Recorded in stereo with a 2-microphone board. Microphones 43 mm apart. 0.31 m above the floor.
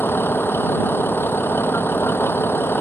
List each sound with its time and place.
0.0 s a vehicle: 60° left (ahead or behind)